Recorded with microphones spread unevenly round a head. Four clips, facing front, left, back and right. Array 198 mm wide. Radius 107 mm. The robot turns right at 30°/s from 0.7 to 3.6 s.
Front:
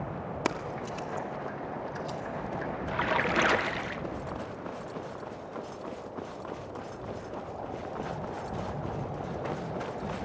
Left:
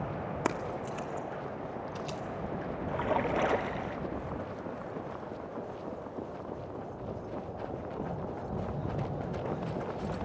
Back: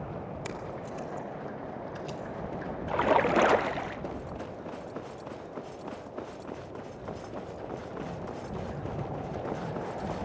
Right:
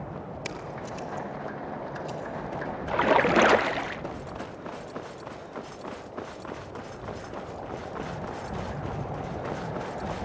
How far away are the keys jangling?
About 1.9 m.